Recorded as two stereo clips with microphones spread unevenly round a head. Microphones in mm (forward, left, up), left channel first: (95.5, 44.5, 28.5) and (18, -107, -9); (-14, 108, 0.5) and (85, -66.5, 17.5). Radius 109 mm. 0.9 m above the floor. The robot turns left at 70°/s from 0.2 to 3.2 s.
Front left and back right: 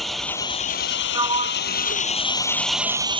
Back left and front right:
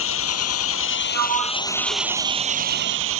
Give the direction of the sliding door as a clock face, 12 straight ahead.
2 o'clock.